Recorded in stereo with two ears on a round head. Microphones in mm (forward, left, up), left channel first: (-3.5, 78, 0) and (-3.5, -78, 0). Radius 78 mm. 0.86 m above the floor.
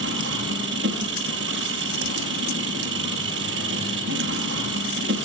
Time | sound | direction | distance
0.0 | an engine running | 75° right (ahead or behind) | 5.5 m